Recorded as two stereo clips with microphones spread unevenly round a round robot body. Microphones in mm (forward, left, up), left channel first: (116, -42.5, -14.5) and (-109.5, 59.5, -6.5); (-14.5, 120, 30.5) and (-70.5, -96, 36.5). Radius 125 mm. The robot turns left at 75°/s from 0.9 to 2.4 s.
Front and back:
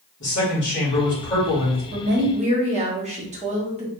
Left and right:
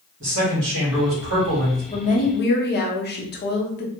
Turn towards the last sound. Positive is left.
turn(degrees=95)